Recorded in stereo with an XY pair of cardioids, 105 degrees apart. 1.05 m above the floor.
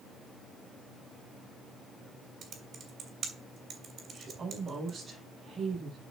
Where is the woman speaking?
40° right, 5 m.